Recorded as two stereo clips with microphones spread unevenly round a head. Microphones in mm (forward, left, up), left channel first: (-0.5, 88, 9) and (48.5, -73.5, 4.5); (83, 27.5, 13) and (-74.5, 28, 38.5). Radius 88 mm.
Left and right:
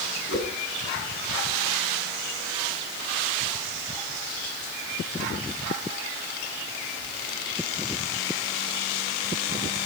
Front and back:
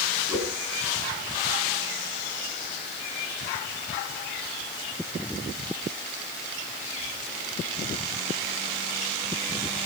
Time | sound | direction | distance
0.3 | a whoosh | 110° left | 3.5 m